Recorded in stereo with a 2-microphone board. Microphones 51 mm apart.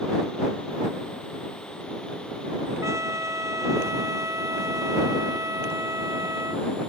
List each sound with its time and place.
2.8 s a trumpet: 75° right (ahead or behind)